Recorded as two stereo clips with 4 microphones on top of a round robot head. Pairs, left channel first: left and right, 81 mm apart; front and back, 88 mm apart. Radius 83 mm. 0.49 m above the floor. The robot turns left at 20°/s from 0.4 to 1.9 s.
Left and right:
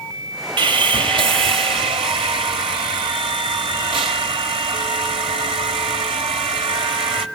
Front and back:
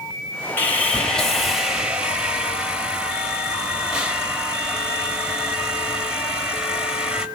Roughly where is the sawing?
Right.